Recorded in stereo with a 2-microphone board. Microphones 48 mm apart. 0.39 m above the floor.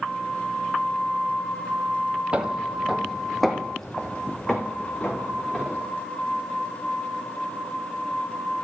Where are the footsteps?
25° right (ahead or behind), 0.9 m; by 5.8 s 20° left (ahead or behind), 2.5 m.